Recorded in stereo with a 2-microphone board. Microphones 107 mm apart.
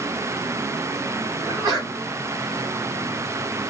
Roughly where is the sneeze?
Right.